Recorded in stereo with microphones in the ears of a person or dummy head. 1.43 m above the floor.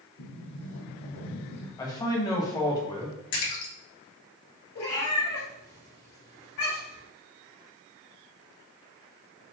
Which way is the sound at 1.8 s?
20° left (ahead or behind).